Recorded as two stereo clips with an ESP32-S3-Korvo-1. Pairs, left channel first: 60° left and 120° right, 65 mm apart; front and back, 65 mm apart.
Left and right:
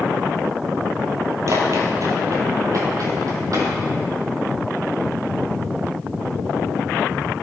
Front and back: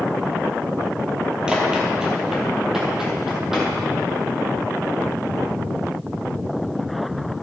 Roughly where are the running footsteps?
Right.